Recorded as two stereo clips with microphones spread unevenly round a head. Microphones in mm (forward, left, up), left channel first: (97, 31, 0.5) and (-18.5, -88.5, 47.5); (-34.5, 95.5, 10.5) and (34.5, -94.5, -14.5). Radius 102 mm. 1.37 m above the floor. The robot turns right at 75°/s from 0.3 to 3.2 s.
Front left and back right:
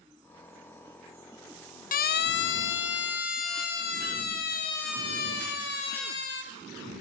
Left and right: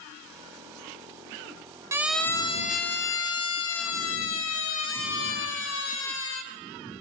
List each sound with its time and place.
1.9 s a siren: 5° left, 2 m; by 6.4 s 80° left, 5.5 m